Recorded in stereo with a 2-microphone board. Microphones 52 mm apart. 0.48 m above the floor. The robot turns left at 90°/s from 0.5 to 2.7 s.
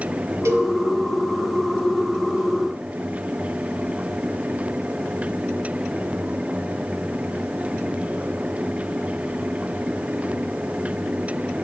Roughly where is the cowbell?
Right.